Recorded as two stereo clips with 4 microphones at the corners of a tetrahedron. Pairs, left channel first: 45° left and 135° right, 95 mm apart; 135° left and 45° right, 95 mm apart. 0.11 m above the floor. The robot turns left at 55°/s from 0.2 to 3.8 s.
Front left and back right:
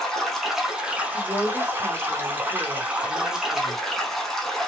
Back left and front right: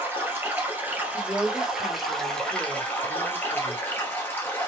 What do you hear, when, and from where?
0.0 s running water: 35° right, 1.0 m; by 4.7 s 125° left, 1.0 m
1.1 s a woman speaking: 170° right, 2 m; by 3.8 s 45° left, 2 m